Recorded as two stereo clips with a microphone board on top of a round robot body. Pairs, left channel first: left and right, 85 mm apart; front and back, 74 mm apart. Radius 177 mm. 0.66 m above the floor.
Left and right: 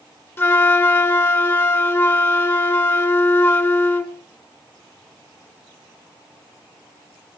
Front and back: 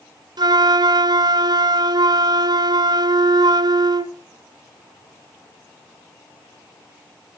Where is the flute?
155° left, 1.2 m.